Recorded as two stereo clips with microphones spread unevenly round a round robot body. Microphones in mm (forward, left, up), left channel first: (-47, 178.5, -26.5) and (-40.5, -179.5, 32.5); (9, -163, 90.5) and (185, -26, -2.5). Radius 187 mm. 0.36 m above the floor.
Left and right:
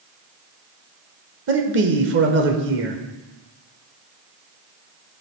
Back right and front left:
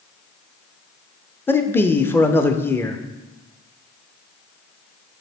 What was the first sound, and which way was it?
A man speaking, 35° right.